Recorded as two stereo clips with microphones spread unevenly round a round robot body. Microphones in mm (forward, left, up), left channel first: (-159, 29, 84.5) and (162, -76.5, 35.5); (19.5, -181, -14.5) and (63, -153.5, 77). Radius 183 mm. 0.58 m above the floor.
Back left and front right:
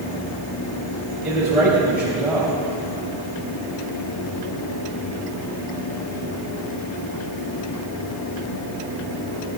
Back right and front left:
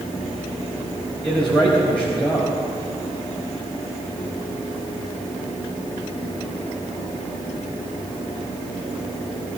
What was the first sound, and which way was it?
A man speaking, 105° right.